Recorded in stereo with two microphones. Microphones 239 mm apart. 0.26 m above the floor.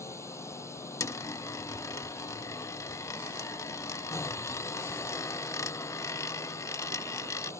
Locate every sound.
0.0 s a drone: 10° left (ahead or behind)
1.0 s a dropped coin: 15° left (ahead or behind)